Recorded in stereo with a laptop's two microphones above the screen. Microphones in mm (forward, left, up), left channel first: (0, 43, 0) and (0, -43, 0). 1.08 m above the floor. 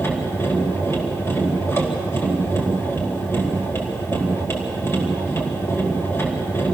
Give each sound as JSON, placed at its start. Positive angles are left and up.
{"t": 0.0, "sound": "a machine running", "side_deg": 30, "distance_m": 4.5}